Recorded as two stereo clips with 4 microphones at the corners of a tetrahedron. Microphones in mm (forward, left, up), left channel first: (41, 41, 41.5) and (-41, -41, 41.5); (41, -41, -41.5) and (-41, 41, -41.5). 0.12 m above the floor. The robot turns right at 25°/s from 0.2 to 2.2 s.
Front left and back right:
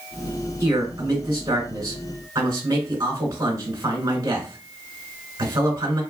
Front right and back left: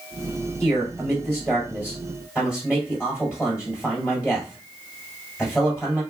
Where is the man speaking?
170° left, 1.9 m; by 6.0 s 150° right, 1.9 m.